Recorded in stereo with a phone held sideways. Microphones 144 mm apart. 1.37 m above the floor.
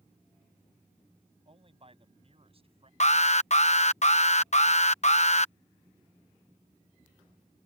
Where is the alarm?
50° left (ahead or behind).